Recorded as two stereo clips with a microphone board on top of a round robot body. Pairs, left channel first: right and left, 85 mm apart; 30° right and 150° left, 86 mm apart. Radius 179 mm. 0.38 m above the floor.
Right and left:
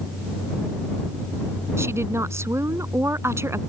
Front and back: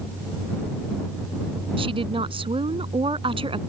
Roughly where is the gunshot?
No gunshot in this recording.